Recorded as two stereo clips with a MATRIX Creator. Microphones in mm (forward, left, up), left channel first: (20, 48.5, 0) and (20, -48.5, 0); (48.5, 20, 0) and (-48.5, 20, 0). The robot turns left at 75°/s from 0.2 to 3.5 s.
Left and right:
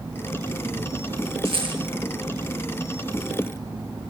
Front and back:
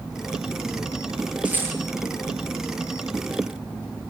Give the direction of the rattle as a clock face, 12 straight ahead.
3 o'clock.